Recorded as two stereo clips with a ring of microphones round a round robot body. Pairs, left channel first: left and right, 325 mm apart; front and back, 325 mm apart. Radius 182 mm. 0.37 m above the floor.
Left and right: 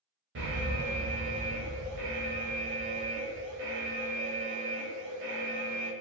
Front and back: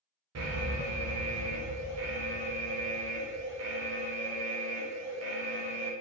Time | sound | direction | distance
0.3 | an alarm | 140° right | 1.1 m